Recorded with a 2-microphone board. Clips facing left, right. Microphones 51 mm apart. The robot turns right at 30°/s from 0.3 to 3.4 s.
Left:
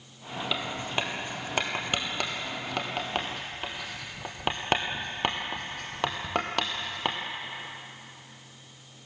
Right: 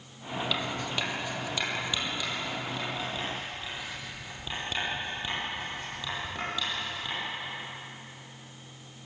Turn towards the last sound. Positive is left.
turn(degrees=70)  # may be behind; listen again after turning